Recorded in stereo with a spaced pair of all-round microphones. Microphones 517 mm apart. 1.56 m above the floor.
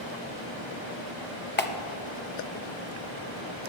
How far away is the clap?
About 0.8 m.